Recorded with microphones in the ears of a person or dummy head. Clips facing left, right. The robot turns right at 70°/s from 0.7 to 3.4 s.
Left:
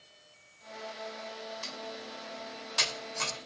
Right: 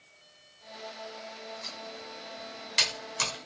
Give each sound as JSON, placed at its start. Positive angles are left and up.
{"t": 1.6, "sound": "typing on a keyboard", "side_deg": 40, "distance_m": 1.1}